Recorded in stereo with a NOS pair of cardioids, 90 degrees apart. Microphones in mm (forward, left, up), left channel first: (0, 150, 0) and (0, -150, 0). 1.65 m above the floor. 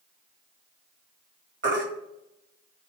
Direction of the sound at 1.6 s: 40° right.